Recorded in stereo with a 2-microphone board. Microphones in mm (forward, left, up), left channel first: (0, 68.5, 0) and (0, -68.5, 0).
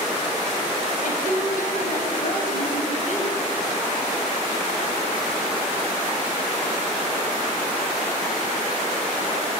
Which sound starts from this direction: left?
A woman speaking, at 1.0 s.